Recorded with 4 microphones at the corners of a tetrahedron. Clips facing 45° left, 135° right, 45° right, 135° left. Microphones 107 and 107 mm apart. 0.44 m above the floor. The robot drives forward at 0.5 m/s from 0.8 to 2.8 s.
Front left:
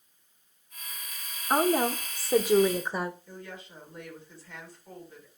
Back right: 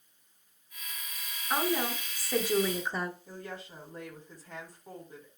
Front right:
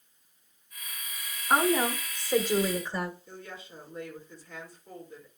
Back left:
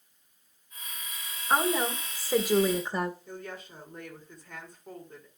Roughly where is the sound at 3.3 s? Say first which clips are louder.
Back right 1 dB, back left 3 dB; behind.